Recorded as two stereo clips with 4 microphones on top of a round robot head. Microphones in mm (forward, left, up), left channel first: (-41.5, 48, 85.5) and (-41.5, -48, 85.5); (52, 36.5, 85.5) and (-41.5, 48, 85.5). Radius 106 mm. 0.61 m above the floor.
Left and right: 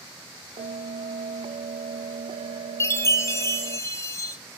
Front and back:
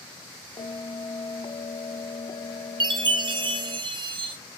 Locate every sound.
0.6 s a bell: 55° right, 0.5 m
2.8 s a chime: 150° left, 1.4 m